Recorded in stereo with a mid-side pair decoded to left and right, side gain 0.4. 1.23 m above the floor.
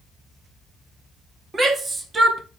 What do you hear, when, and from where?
1.5 s a shout: 40° right, 2.5 m